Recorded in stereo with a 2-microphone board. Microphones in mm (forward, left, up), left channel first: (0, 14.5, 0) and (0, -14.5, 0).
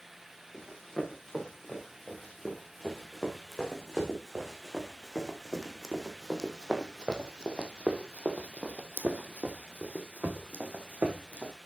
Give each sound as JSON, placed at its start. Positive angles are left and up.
{"t": 0.5, "sound": "running footsteps", "side_deg": 20, "distance_m": 6.0}